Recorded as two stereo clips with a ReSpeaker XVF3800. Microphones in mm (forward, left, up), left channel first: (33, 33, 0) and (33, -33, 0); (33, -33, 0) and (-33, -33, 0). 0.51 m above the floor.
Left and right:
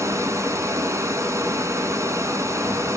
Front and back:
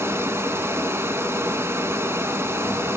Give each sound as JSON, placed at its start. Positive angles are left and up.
{"t": 0.0, "sound": "running water", "azimuth_deg": -130, "distance_m": 1.7}